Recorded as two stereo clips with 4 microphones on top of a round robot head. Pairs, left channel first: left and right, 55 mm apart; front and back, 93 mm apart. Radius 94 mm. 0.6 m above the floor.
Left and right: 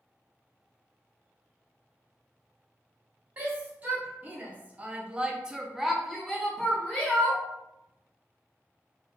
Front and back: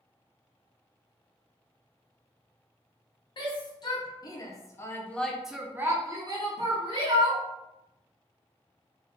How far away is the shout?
About 1.2 m.